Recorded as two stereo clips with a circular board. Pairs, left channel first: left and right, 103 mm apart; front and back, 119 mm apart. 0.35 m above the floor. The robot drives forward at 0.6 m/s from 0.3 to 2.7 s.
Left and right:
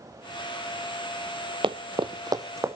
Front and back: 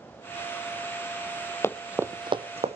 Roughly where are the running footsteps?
Ahead right.